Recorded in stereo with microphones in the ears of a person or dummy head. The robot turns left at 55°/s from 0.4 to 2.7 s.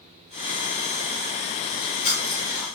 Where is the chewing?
60° left (ahead or behind), 8.5 m; by 2.8 s 5° left (ahead or behind), 8.5 m.